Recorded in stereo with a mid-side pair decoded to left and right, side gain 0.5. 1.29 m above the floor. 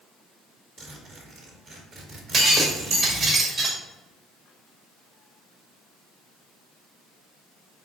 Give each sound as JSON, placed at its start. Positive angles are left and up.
{"t": 0.8, "sound": "a zipper", "azimuth_deg": -60, "distance_m": 2.0}
{"t": 2.3, "sound": "breaking glass", "azimuth_deg": -55, "distance_m": 1.8}